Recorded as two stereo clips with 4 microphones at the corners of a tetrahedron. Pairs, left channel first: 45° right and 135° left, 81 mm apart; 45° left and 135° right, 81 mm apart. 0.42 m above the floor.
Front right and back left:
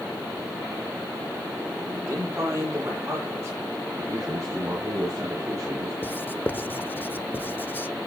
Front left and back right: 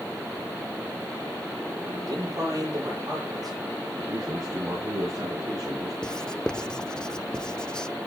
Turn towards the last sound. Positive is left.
turn(degrees=-25)